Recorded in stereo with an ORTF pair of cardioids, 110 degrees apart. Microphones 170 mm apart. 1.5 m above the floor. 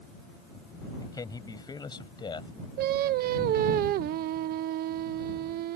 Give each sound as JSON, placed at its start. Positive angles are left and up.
{"t": 1.0, "sound": "a man speaking", "azimuth_deg": 20}
{"t": 2.8, "sound": "singing", "azimuth_deg": -70}